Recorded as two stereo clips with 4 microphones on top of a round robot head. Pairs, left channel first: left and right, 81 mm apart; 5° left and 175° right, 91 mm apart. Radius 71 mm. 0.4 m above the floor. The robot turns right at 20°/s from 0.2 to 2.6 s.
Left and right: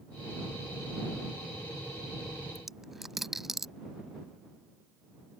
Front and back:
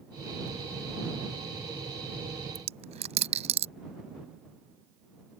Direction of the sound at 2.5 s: Straight behind.